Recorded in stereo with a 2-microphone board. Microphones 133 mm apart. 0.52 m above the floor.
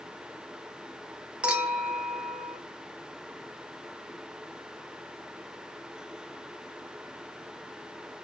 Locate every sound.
1.4 s a clink: 10° right (ahead or behind), 0.8 m